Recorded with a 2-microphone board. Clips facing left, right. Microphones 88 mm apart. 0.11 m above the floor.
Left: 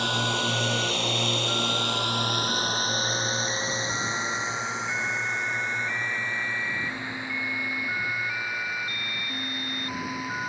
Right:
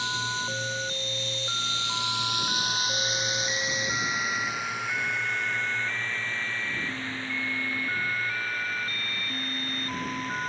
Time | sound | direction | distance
0.0 | a drone | 55° left (ahead or behind) | ?